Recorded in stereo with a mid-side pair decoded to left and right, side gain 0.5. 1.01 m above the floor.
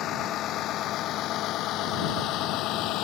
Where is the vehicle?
65° left; by 3.0 s 75° left.